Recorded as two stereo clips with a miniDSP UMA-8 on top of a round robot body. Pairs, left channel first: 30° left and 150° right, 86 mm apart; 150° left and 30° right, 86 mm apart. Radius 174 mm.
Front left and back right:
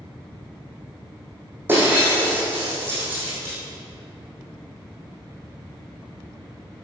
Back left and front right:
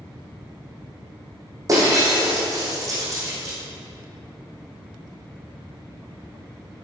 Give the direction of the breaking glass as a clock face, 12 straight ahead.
3 o'clock.